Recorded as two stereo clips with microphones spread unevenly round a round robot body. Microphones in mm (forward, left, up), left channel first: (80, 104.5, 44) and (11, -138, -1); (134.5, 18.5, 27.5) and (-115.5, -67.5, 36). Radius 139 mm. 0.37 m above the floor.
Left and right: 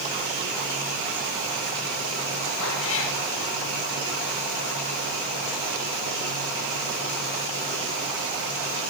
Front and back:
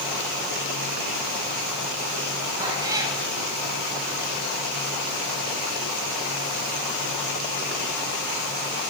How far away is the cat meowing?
About 7.5 m.